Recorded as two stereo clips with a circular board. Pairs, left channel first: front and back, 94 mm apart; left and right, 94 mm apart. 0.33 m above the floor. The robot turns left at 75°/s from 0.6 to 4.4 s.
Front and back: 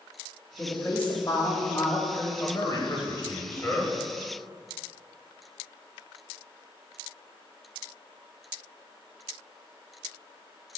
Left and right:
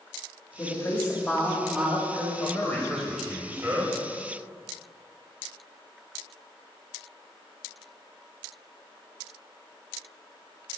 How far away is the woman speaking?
About 1.0 m.